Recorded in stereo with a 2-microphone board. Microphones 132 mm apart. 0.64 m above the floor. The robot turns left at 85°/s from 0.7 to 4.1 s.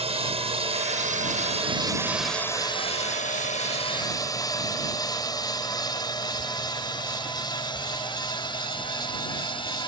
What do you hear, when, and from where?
0.0 s a drone: 45° right (ahead or behind); by 9.9 s 35° left (ahead or behind)